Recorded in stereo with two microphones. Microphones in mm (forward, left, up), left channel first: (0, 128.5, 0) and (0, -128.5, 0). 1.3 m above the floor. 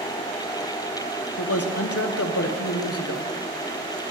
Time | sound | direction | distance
1.4 | a man speaking | 70° left (ahead or behind) | 0.7 m